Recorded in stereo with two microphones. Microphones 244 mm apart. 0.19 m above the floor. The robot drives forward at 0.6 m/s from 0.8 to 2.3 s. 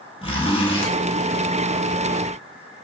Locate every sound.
0.2 s a zipper: 20° left (ahead or behind), 1.2 m; by 0.9 s 25° left (ahead or behind), 1.2 m